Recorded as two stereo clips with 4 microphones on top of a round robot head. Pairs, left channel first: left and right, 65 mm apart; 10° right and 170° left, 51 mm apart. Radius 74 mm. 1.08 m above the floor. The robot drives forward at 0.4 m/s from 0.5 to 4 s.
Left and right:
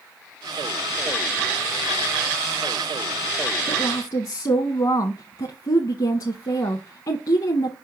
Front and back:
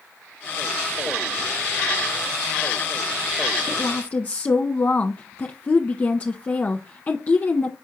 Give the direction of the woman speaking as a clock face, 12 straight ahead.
10 o'clock.